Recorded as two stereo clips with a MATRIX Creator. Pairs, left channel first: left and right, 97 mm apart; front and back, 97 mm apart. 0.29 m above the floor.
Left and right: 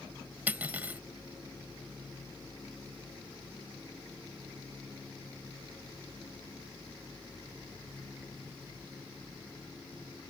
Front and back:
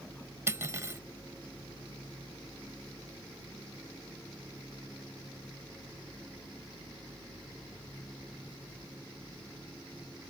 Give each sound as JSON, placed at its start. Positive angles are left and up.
{"t": 0.5, "sound": "cutlery clinking", "azimuth_deg": -150}